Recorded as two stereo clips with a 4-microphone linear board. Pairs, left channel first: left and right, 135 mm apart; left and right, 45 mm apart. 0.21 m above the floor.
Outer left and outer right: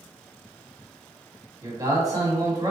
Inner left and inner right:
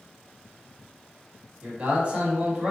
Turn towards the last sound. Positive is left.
turn(degrees=-30)  # may be behind; listen again after turning